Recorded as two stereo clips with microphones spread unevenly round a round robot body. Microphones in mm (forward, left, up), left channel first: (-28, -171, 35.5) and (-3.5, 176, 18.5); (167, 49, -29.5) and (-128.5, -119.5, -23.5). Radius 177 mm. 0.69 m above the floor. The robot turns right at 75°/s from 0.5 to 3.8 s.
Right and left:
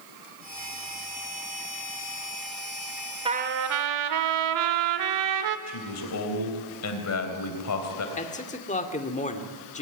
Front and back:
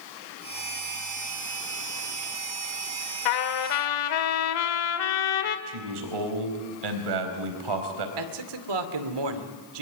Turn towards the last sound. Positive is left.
turn(degrees=-165)